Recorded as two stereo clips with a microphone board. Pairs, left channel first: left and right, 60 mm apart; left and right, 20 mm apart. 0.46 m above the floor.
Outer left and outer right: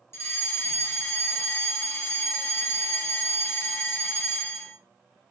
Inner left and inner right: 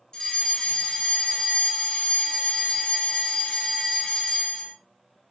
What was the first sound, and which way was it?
A fire alarm, 45° left (ahead or behind).